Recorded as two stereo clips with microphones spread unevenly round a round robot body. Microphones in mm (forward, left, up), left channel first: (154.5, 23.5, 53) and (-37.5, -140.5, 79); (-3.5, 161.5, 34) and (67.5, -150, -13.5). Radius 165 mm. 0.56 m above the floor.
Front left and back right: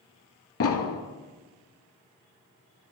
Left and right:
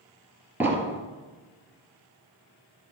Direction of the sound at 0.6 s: 10° left.